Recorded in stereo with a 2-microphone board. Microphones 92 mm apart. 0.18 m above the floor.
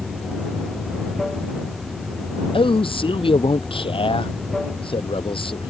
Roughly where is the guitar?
No guitar in this recording.